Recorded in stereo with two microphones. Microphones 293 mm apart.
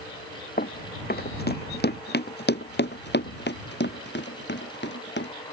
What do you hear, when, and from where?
0.6 s running footsteps: 30° left (ahead or behind); by 5.3 s 40° left (ahead or behind)